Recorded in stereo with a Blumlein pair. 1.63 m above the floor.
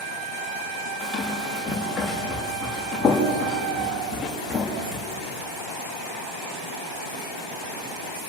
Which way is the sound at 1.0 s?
10° left.